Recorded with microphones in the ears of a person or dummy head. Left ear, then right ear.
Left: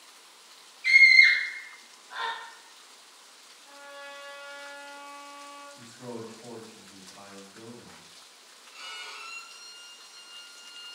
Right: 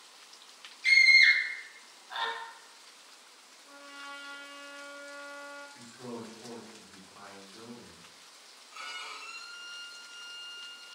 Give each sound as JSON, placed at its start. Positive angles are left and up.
{"t": 0.8, "sound": "a scream", "side_deg": -25, "distance_m": 0.8}
{"t": 3.6, "sound": "a trumpet", "side_deg": -10, "distance_m": 1.7}
{"t": 5.8, "sound": "a man speaking", "side_deg": -30, "distance_m": 1.1}
{"t": 8.7, "sound": "a violin", "side_deg": -45, "distance_m": 1.7}